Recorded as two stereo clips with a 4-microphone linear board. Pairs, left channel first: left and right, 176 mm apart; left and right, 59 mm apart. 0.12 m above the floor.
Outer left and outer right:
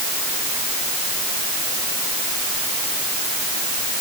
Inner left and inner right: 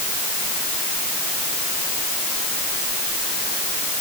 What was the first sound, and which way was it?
Only background noise.